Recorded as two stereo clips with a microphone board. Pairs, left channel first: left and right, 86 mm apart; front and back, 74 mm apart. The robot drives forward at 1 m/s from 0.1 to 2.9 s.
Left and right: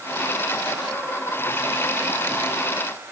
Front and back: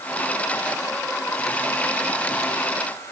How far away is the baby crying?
I don't hear a baby crying.